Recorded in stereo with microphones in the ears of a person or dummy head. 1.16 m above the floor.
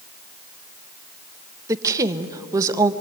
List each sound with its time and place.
1.7 s a woman speaking: 20° right (ahead or behind), 1.1 m